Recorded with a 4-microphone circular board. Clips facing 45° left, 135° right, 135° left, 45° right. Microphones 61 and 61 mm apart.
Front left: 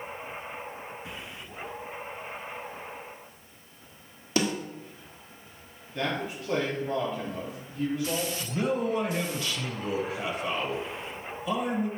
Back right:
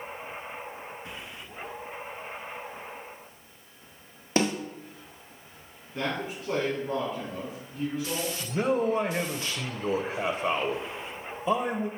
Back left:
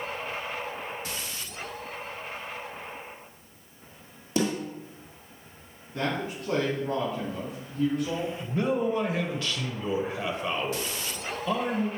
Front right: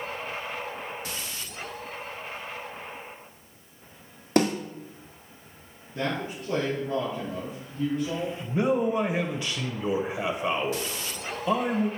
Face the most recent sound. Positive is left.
turn(degrees=-100)